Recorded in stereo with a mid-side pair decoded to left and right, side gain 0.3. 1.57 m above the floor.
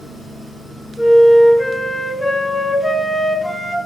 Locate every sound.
1.0 s a flute: 20° left, 0.6 m